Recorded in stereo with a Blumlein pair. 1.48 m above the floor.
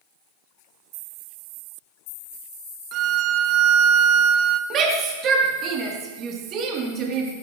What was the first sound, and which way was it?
A violin, 35° right.